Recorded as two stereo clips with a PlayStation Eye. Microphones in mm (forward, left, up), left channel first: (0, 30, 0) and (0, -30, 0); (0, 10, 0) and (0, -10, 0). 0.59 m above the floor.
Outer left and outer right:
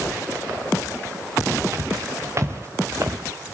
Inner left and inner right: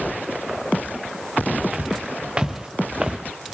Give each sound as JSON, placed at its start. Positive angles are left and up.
{"t": 1.7, "sound": "footsteps", "side_deg": -50, "distance_m": 5.0}